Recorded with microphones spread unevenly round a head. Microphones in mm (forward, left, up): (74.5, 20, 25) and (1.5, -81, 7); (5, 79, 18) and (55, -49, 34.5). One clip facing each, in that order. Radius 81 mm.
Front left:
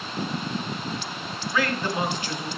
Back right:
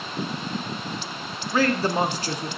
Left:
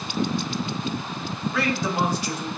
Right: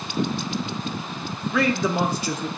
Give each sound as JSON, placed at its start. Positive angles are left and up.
{"t": 1.5, "sound": "a man speaking", "azimuth_deg": -70, "distance_m": 1.0}